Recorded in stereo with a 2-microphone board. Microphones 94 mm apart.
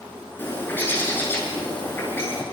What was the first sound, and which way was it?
A bird, 25° left (ahead or behind).